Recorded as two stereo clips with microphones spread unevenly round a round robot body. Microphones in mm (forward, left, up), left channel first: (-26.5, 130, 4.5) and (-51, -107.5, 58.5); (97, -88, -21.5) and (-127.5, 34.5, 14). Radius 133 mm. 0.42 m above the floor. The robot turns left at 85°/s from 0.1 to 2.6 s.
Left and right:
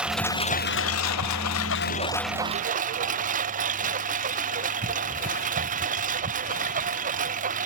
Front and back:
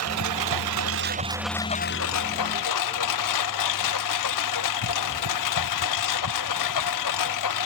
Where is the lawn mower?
Straight behind; by 7.7 s 35° right.